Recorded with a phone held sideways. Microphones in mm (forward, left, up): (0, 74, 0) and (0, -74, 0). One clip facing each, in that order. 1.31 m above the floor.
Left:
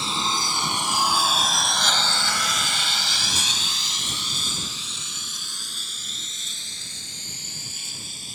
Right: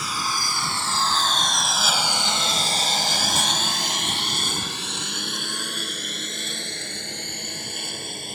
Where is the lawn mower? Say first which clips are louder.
Left 2 dB; 25° left (ahead or behind); by 8.3 s 65° right (ahead or behind).